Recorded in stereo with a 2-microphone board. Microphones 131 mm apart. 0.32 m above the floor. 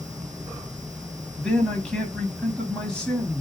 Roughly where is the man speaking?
Centre.